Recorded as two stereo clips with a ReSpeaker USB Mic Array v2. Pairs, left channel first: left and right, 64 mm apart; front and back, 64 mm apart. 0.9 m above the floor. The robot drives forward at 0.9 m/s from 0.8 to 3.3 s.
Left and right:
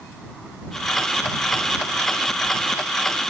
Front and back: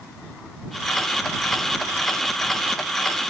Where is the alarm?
I don't hear an alarm.